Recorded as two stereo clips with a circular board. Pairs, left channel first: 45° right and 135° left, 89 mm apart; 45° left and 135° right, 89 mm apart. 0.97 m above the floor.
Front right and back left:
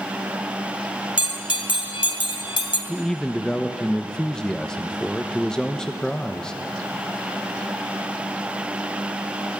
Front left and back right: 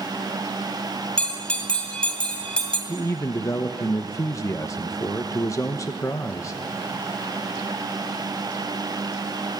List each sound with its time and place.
1.2 s a bell: 35° right, 2.5 m
2.9 s a man speaking: 30° left, 0.9 m